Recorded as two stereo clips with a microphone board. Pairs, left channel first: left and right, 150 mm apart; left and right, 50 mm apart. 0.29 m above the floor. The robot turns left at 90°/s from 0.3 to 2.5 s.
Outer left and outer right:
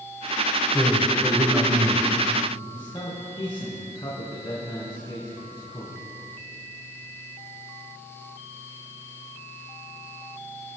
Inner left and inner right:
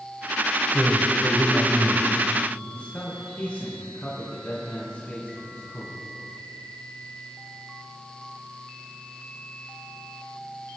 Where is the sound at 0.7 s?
65° left, 1.7 m; by 2.1 s 60° right, 1.7 m.